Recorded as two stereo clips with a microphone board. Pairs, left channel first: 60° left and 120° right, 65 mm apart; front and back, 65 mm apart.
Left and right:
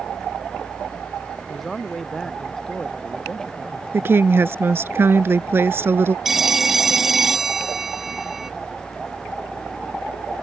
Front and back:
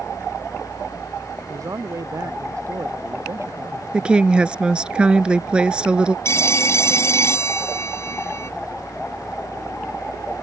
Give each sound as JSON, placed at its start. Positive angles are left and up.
{"t": 1.5, "sound": "a man speaking", "azimuth_deg": 150}
{"t": 3.9, "sound": "a woman speaking", "azimuth_deg": -115}
{"t": 6.2, "sound": "a phone ringing", "azimuth_deg": -35}